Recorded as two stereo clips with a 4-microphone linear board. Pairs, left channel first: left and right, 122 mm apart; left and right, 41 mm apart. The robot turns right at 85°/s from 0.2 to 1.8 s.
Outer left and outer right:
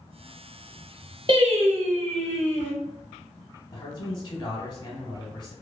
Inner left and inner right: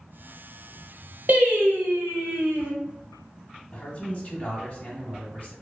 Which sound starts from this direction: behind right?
Singing, at 1.3 s.